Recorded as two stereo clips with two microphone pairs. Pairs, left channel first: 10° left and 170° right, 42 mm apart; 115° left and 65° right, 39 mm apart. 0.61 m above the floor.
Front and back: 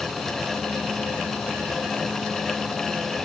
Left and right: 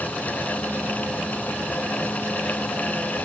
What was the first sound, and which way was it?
Only background noise.